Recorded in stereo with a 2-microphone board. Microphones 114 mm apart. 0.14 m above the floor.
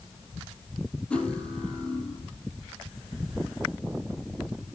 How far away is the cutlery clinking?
About 2 m.